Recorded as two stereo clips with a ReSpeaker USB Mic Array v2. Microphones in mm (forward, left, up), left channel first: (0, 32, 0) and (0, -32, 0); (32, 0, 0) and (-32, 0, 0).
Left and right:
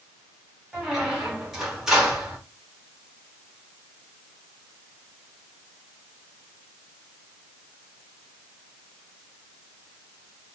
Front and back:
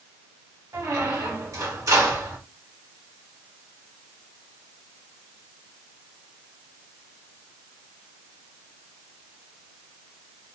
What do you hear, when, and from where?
0.7 s a squeak: 170° right, 2 m